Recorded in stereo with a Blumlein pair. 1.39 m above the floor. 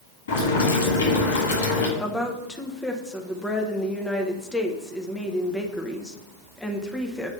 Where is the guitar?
I don't hear a guitar.